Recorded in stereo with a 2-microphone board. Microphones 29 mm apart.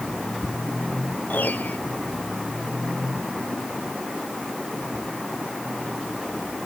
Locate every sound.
1.3 s a piano: 85° left